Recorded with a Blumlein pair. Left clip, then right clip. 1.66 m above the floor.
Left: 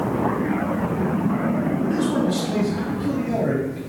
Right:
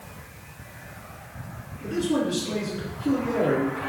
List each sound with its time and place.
1.8 s a man speaking: 65° left, 0.9 m